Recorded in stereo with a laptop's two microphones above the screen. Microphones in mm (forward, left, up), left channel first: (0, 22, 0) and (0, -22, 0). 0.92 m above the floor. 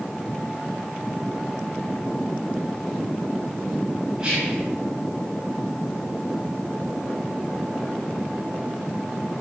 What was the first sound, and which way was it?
Whispering, 20° right (ahead or behind).